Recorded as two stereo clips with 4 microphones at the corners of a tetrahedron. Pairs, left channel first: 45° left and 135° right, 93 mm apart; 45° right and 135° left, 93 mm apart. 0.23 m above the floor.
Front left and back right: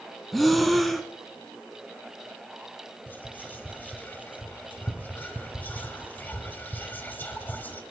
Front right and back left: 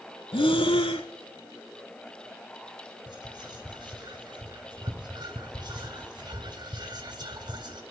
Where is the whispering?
110° left, 1.8 m.